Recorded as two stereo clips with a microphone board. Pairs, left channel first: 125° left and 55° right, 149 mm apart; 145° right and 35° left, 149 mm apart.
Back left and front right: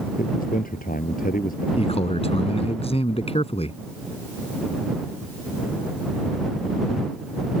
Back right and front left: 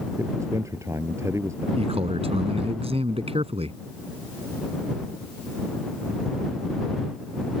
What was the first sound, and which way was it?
A man speaking, 105° left.